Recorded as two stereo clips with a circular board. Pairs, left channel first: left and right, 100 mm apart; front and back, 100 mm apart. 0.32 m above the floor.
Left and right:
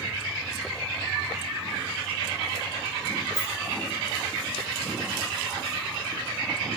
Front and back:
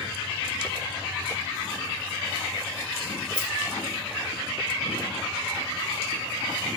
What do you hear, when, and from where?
3.3 s a rattle: 145° left, 5 m